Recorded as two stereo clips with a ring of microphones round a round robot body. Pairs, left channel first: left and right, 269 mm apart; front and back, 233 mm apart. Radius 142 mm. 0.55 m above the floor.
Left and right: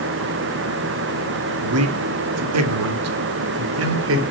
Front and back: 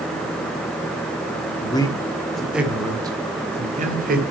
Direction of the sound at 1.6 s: 70° right.